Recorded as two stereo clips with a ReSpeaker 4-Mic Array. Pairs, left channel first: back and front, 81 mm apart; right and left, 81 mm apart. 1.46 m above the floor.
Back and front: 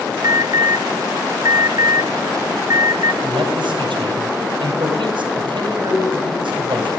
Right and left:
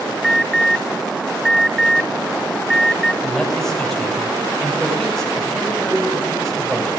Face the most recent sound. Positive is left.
turn(degrees=-5)